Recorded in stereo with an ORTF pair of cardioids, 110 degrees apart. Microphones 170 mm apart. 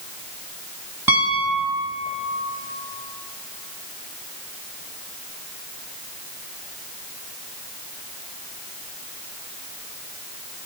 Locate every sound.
1.1 s a piano: 15° right, 1.7 m